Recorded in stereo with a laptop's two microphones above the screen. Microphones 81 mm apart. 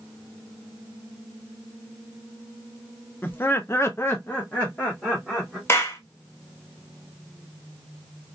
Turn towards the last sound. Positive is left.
turn(degrees=30)  # may be behind; listen again after turning